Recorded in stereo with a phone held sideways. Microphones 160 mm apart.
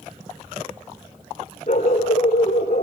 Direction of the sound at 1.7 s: 45° left (ahead or behind).